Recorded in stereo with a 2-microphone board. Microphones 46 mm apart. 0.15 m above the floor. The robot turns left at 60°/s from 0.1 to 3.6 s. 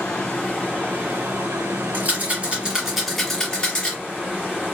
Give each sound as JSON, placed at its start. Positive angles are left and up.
{"t": 0.0, "sound": "running water", "azimuth_deg": 25, "distance_m": 1.1}
{"t": 1.9, "sound": "a rattle", "side_deg": -45, "distance_m": 2.0}